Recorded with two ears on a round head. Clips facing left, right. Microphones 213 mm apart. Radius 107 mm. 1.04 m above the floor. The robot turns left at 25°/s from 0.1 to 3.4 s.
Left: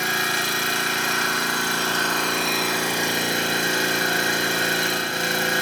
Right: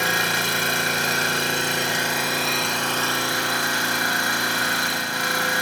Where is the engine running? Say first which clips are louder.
Right 1 dB; 120° right, 3.5 m; by 5.6 s 155° left, 3.5 m.